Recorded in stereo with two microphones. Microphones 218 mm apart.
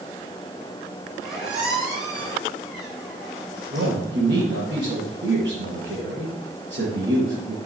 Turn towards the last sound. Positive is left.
turn(degrees=-55)  # may be behind; listen again after turning